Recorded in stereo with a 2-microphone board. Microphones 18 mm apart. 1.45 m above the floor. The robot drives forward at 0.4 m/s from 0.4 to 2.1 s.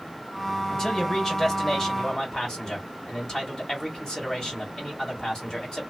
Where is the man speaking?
30° left (ahead or behind), 1.6 m; by 5.9 s 20° left (ahead or behind), 2 m.